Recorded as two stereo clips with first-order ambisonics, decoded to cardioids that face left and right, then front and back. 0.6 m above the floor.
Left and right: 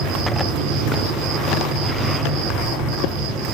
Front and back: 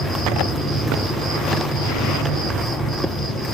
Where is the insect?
95° right, 5 m.